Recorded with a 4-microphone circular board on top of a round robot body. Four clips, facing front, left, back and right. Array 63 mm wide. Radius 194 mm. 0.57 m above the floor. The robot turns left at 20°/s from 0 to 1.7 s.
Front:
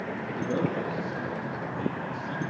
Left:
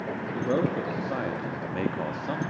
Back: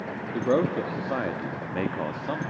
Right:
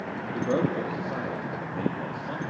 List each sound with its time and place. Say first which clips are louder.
0.3 s a man speaking: right 1 dB, back 6 dB; 175° right, 1.3 m; by 2.4 s 155° left, 1.3 m